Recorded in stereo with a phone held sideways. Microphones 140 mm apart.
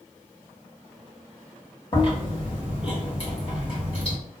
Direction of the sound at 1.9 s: 40° left (ahead or behind).